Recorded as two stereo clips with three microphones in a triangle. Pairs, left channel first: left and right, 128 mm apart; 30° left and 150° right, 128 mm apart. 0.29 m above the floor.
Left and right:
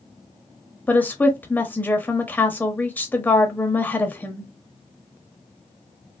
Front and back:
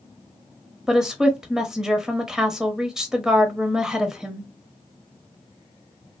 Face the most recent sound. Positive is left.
turn(degrees=135)